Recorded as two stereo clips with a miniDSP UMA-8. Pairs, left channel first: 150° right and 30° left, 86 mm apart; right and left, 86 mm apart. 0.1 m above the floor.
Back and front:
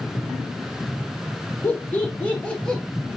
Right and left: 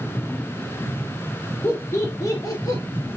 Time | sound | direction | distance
1.6 | laughter | 120° right | 1.5 m